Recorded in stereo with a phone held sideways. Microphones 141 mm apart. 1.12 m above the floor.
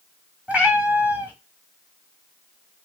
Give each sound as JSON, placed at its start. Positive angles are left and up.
{"t": 0.5, "sound": "a cat meowing", "side_deg": -10, "distance_m": 1.2}